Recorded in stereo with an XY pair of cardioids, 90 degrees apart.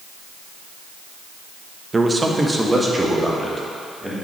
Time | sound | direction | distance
1.9 | a man speaking | 25° right | 1.2 m